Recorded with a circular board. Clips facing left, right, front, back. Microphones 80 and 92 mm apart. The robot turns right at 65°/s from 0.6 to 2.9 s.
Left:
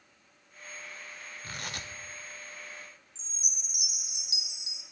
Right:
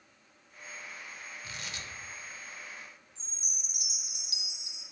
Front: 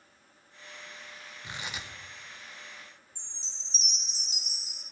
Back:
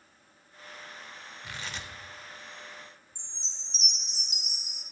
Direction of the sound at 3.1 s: 155° left.